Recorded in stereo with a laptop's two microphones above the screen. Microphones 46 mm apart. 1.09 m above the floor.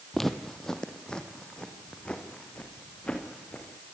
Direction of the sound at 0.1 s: 5° left (ahead or behind).